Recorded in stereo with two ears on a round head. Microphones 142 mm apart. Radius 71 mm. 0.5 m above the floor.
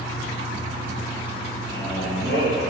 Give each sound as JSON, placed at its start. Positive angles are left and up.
{"t": 1.7, "sound": "a man speaking", "side_deg": 75, "distance_m": 4.0}